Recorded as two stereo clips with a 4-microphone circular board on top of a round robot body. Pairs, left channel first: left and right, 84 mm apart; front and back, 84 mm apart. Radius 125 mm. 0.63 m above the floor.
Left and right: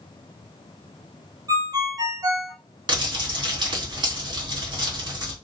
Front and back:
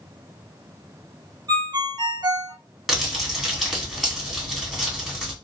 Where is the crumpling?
95° right, 1.9 m.